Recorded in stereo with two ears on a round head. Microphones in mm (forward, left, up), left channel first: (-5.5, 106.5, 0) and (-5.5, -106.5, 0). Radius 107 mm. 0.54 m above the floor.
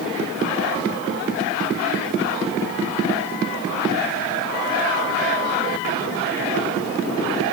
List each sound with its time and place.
Only background noise.